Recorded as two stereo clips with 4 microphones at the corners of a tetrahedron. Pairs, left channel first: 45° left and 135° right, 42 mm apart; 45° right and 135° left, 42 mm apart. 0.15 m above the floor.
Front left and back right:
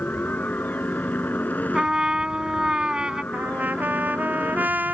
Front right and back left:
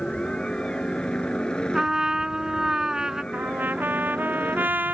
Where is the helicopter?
20° left; by 4.9 s 15° left.